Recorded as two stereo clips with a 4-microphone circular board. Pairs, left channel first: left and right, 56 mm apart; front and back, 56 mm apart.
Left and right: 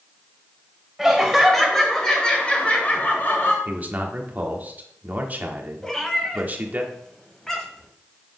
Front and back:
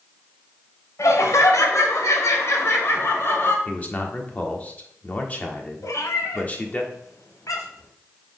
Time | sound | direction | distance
1.0 | laughter | 5° right | 2 m
3.6 | a man speaking | 50° right | 1.2 m
5.8 | a cat meowing | 10° left | 1.3 m